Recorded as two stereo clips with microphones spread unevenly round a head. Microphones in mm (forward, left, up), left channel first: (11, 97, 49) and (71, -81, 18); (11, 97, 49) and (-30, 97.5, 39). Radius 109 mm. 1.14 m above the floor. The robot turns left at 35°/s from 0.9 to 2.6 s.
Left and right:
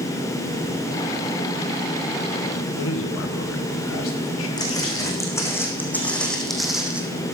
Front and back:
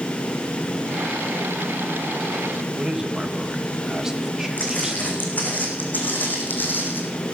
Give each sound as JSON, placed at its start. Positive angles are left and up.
{"t": 2.8, "sound": "a man speaking", "azimuth_deg": 105, "distance_m": 1.8}
{"t": 4.6, "sound": "footsteps", "azimuth_deg": 40, "distance_m": 5.5}